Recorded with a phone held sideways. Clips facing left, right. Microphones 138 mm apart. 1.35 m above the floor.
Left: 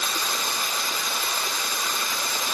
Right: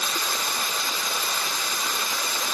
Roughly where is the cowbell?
I don't hear a cowbell.